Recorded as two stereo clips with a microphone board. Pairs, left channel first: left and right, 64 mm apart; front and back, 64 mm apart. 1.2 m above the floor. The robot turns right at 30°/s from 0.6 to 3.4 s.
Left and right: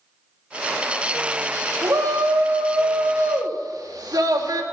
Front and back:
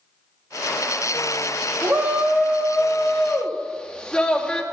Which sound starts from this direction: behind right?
A shout, at 1.8 s.